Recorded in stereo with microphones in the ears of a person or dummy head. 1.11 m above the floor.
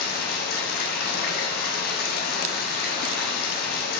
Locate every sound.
0.0 s running water: 45° left (ahead or behind), 1.3 m